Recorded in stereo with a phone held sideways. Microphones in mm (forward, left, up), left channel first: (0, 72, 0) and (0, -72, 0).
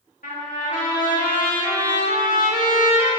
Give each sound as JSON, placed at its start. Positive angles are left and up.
{"t": 0.2, "sound": "a trumpet", "side_deg": 65, "distance_m": 2.0}